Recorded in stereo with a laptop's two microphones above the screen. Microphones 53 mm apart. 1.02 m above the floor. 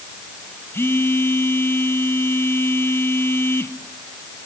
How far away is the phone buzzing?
About 1.7 m.